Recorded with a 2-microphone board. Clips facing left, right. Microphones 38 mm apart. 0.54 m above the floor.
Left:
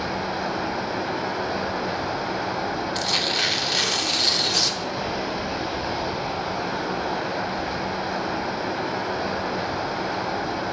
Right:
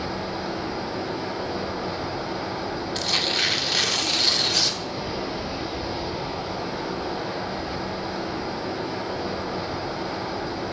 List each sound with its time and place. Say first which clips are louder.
0.0 s running water: left 3 dB; 70° left (ahead or behind), 1.7 m
3.0 s tearing paper: right 1 dB; centre (ahead or behind), 1.0 m